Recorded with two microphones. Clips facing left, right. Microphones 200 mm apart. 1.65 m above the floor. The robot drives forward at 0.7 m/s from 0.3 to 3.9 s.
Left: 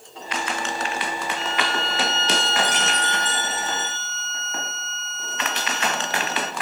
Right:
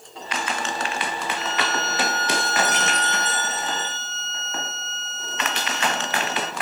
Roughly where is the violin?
Right.